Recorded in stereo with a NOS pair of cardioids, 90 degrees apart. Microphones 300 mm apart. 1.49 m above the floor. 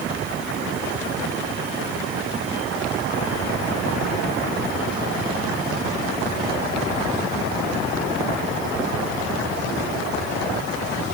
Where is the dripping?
I don't hear dripping.